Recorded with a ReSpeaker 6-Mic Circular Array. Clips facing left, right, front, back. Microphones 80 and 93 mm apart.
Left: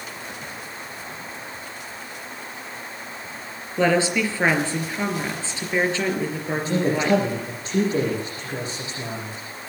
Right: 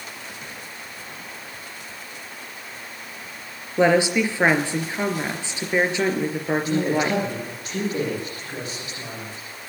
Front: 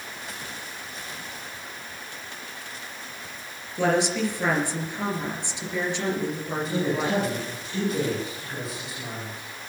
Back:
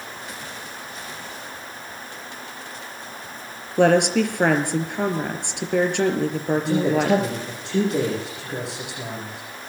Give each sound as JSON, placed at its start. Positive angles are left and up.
{"t": 3.8, "sound": "a woman speaking", "azimuth_deg": -160, "distance_m": 3.5}
{"t": 6.5, "sound": "a man speaking", "azimuth_deg": 150, "distance_m": 8.5}